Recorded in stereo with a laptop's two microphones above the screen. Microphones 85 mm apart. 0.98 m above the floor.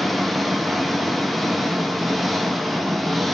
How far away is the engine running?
About 0.7 m.